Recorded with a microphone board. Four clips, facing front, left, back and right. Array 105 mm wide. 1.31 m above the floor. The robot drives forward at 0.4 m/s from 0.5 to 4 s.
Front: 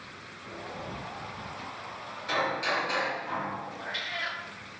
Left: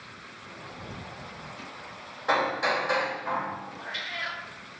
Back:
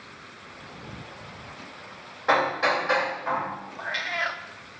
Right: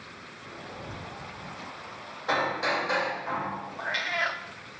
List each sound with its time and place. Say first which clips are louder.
2.3 s hammering: left 2 dB, back 7 dB; 170° left, 3.5 m; by 3.5 s 175° left, 4 m
3.8 s a cat meowing: right 6 dB, back 6 dB; 135° right, 1.0 m